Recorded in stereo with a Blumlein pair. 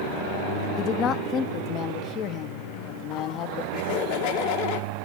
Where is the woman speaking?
30° left, 0.8 m.